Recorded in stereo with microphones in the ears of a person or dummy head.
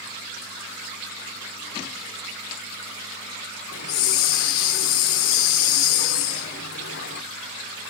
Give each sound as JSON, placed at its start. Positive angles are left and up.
{"t": 3.7, "sound": "a hiss", "side_deg": 55, "distance_m": 1.7}